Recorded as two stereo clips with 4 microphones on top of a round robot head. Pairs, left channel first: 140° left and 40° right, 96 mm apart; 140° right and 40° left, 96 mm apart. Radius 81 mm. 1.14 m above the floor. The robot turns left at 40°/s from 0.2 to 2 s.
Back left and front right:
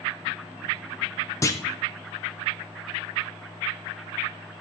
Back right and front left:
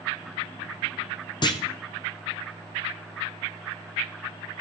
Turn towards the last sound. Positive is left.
turn(degrees=170)